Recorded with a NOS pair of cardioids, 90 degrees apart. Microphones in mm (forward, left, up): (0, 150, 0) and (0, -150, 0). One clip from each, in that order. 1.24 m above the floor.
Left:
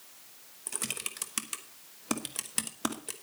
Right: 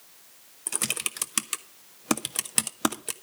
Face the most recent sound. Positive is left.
turn(degrees=-35)